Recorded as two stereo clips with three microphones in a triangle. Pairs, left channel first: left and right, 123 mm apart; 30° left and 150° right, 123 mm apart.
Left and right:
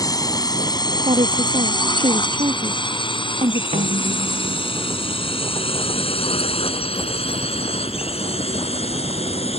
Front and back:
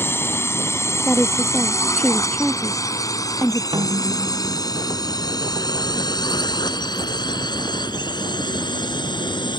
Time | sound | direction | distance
0.0 | a drone | 80° left | ?
1.1 | a woman speaking | 50° right | ?
3.7 | a snare drum | 100° right | ?